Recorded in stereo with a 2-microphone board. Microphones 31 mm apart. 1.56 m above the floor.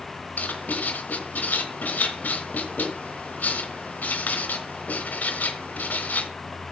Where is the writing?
65° left (ahead or behind), 3.5 m.